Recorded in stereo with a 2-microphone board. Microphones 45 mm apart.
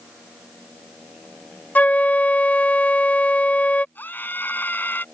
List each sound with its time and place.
1.8 s a flute: 35° left (ahead or behind)
4.0 s a scream: 45° left (ahead or behind)